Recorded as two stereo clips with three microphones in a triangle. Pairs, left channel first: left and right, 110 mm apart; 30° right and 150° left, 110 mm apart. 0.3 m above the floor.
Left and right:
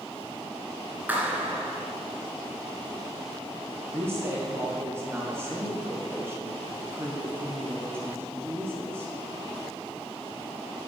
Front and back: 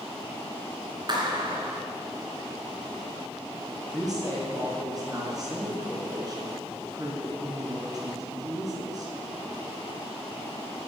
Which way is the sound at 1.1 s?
165° right.